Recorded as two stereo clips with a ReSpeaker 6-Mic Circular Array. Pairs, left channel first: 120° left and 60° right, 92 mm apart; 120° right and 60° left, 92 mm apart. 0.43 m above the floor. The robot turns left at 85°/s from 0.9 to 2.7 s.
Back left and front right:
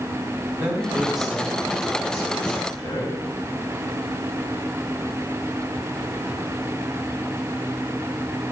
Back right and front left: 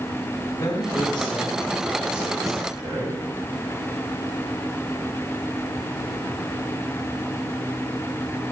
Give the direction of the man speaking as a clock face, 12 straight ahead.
4 o'clock.